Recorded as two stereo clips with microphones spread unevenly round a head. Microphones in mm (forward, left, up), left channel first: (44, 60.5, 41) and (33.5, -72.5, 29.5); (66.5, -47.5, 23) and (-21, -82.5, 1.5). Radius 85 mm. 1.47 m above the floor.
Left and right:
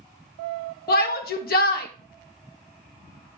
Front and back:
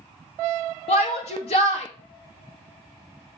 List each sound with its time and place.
0.9 s a shout: 75° left, 1.8 m